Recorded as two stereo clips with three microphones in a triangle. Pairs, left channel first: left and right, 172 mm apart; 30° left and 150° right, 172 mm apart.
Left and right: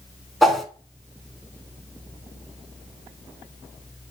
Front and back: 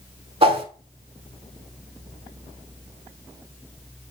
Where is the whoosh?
Straight behind, 0.7 m.